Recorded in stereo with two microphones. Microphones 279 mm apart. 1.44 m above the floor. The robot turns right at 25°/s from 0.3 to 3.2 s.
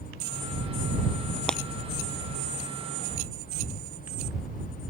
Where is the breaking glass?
5° left (ahead or behind); by 1.6 s centre (ahead or behind).